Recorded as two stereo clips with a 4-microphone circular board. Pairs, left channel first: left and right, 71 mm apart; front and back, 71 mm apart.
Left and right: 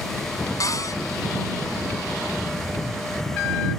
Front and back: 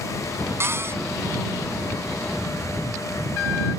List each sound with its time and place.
0.6 s a cupboard door: 125° left